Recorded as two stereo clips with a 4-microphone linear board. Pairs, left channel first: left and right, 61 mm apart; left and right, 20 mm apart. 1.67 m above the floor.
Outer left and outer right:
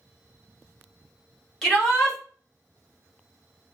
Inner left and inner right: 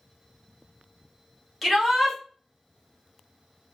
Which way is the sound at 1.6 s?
5° left (ahead or behind).